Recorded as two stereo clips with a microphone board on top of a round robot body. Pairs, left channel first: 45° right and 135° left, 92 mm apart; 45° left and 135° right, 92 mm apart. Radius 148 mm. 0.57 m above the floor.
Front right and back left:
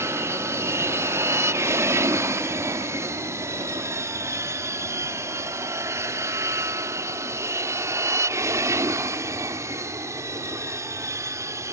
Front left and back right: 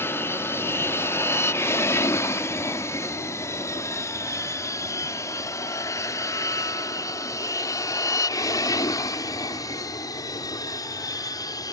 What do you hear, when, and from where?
0.0 s an aircraft: 95° left; by 11.7 s 85° left